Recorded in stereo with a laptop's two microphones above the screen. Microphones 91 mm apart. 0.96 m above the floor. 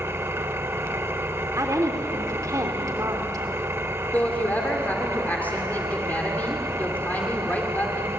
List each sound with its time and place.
0.0 s an engine running: 30° right (ahead or behind), 0.8 m
1.6 s a woman speaking: 35° right (ahead or behind), 3 m
4.1 s a woman speaking: 20° left (ahead or behind), 2 m